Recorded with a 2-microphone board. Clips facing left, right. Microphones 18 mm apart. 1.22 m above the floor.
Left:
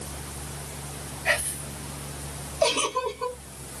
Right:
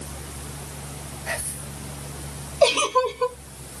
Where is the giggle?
35° right (ahead or behind), 0.8 m.